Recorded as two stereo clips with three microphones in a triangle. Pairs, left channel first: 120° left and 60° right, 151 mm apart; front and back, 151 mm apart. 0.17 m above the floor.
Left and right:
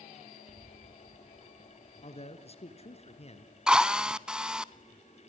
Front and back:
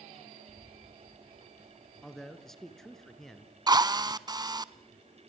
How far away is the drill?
About 0.7 m.